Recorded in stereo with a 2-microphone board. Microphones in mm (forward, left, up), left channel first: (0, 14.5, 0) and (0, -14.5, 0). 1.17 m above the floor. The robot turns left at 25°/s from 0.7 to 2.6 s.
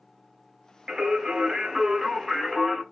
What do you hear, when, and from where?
0.9 s singing: 130° right, 1.4 m; by 2.8 s 175° right, 1.4 m